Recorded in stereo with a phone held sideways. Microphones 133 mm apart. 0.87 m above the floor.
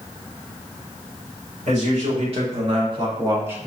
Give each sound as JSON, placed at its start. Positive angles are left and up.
{"t": 1.6, "sound": "a man speaking", "side_deg": -55, "distance_m": 2.5}